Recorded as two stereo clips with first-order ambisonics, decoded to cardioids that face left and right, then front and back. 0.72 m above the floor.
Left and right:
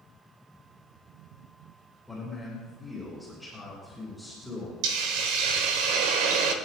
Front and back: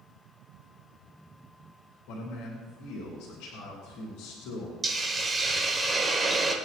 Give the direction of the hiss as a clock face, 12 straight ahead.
3 o'clock.